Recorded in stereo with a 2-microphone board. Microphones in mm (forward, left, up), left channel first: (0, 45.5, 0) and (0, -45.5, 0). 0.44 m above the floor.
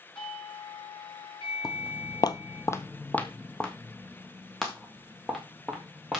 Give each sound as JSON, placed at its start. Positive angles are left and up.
{"t": 0.1, "sound": "a doorbell", "side_deg": 70, "distance_m": 5.5}
{"t": 1.6, "sound": "footsteps", "side_deg": 45, "distance_m": 0.7}